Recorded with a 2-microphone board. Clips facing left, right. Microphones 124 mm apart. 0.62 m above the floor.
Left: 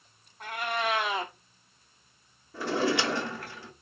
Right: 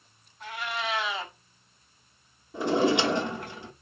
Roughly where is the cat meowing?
Left.